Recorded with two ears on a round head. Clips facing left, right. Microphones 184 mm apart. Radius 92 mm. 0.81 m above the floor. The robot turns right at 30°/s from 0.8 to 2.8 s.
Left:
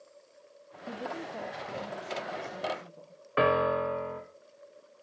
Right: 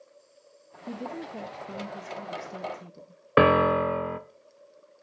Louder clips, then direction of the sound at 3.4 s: Right 6 dB; 70° right (ahead or behind).